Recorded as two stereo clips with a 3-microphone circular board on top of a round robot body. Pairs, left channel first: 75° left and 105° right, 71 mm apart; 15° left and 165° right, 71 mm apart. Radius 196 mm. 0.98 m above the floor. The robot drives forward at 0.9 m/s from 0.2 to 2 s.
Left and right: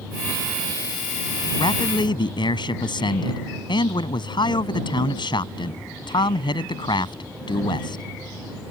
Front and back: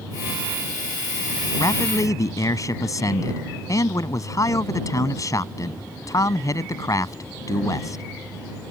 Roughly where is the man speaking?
Ahead left.